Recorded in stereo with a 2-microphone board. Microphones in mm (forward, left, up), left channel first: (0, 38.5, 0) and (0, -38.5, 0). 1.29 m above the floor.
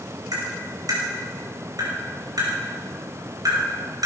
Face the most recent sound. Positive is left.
turn(degrees=-55)  # may be behind; listen again after turning